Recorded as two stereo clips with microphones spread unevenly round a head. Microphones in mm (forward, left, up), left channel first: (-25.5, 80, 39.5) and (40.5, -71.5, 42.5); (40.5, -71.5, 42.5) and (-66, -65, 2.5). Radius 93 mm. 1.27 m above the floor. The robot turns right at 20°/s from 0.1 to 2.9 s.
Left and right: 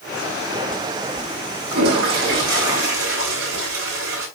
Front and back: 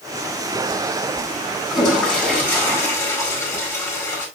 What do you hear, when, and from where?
1.7 s a toilet flushing: 95° right, 5 m; by 4.3 s 70° right, 5 m